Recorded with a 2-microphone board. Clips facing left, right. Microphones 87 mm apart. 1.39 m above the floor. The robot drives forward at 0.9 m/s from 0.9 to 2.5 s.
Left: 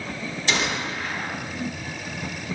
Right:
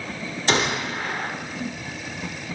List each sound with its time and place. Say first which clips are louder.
0.5 s a gunshot: right 3 dB; 45° right (ahead or behind), 1.5 m; by 1.3 s 50° right (ahead or behind), 1.3 m